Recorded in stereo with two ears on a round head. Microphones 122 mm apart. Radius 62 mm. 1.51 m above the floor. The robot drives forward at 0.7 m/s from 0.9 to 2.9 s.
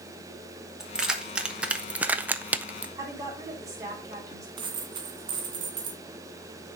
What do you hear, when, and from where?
0.8 s keys jangling: 5° right (ahead or behind), 1.2 m; by 2.9 s 10° right (ahead or behind), 0.6 m
3.0 s a woman speaking: 25° right (ahead or behind), 3.5 m
4.6 s a dropped coin: 35° right (ahead or behind), 1.8 m